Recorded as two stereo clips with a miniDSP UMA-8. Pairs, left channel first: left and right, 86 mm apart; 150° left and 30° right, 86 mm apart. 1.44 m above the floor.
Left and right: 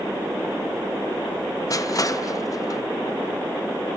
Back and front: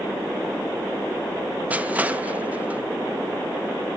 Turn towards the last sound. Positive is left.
turn(degrees=40)